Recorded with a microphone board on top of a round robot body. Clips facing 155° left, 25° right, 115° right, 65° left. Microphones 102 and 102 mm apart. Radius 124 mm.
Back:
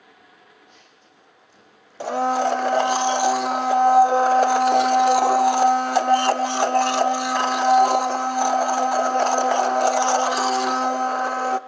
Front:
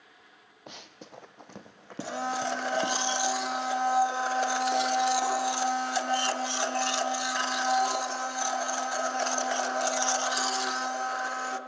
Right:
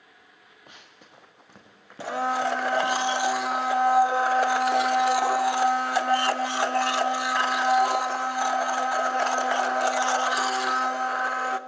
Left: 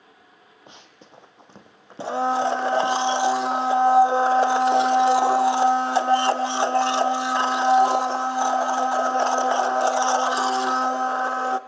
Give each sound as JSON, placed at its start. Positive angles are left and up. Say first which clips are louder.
{"t": 0.7, "sound": "running footsteps", "louder": "front 6 dB, left 4 dB", "azimuth_deg": 0, "distance_m": 1.1}
{"t": 2.0, "sound": "a blender", "louder": "back 11 dB, left 4 dB", "azimuth_deg": 130, "distance_m": 0.7}